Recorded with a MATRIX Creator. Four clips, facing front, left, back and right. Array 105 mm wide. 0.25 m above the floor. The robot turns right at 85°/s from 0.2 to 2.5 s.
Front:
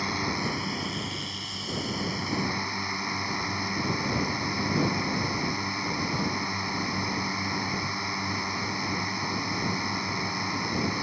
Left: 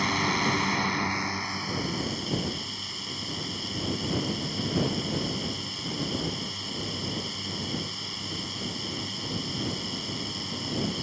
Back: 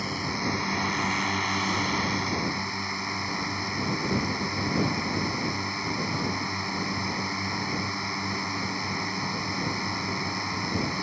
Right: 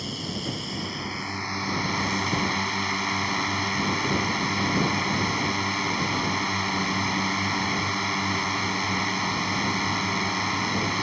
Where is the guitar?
No guitar in this recording.